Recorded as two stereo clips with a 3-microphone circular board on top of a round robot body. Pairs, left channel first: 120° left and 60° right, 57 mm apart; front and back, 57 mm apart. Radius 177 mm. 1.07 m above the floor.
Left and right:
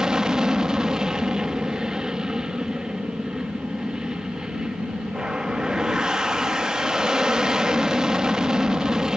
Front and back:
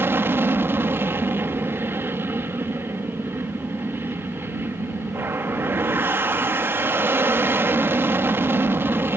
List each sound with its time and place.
0.0 s an aircraft: 135° right